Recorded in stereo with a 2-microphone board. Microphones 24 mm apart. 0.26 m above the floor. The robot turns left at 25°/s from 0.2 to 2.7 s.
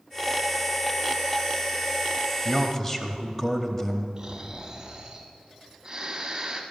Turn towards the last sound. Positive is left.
turn(degrees=-20)  # may be behind; listen again after turning